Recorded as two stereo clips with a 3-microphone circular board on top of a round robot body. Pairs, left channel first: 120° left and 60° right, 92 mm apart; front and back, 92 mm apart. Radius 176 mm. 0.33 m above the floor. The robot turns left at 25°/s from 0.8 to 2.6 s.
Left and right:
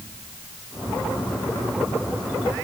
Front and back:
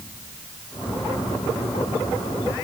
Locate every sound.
Only background noise.